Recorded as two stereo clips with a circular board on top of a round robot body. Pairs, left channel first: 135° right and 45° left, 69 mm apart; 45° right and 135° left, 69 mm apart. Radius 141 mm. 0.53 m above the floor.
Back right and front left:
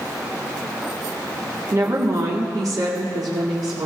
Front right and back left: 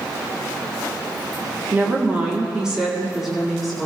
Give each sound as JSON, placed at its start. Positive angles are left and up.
{"t": 1.7, "sound": "a woman speaking", "azimuth_deg": 75, "distance_m": 1.7}